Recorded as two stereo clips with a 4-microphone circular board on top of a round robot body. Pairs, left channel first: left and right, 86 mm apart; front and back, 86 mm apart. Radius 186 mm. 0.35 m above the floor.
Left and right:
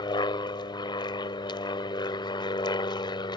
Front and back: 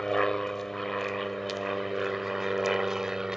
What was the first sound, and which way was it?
An aircraft, 85° left.